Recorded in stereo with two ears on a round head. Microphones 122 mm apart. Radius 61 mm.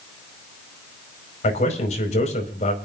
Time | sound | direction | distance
1.4 | a man speaking | 55° left (ahead or behind) | 5 m